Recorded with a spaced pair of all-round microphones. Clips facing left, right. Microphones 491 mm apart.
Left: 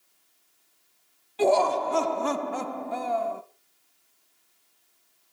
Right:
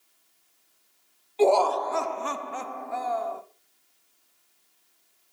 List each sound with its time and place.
1.4 s laughter: 35° left (ahead or behind), 0.7 m; by 3.4 s 45° left (ahead or behind), 0.9 m